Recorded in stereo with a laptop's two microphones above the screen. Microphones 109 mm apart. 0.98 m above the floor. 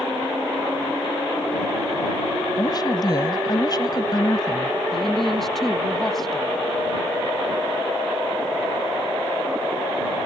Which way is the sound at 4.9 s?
Centre (ahead or behind).